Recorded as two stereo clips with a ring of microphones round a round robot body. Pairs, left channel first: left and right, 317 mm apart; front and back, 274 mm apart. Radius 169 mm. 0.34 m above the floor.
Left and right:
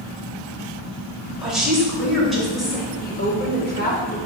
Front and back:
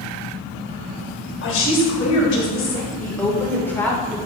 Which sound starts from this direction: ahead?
A woman speaking, at 1.4 s.